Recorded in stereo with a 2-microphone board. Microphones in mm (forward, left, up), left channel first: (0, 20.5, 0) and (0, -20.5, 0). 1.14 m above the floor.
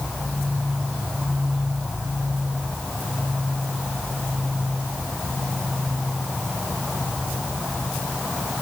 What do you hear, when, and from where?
Only background noise.